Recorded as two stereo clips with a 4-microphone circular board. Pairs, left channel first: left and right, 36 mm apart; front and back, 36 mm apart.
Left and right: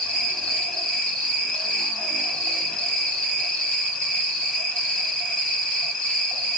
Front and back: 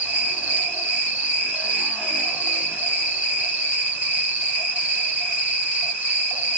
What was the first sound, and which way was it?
An insect, 155° left.